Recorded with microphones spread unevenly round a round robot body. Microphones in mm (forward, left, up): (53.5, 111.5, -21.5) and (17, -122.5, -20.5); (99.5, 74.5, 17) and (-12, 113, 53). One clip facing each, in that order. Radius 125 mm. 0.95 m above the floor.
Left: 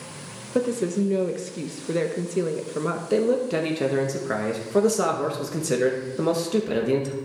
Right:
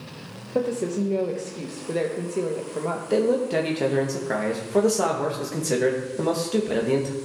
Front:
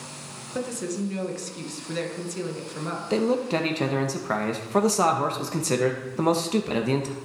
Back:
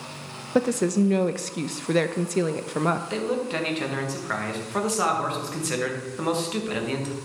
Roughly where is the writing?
I don't hear writing.